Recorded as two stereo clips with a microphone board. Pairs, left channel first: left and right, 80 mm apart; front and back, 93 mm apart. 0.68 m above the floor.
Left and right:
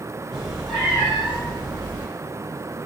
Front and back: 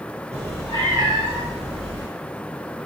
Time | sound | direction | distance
0.3 | a cat meowing | 175° right | 7.5 m